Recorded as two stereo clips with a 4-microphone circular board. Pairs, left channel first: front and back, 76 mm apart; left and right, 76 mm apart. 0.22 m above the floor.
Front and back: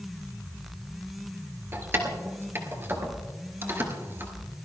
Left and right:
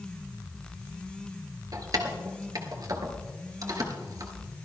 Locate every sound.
1.7 s keys jangling: 120° right, 2 m